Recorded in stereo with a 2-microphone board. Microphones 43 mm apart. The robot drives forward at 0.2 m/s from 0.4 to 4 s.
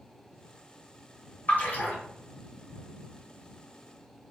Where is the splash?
45° left (ahead or behind), 1.3 m.